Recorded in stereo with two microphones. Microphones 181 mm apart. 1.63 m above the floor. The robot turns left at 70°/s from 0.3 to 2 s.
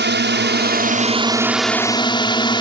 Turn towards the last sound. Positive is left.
turn(degrees=155)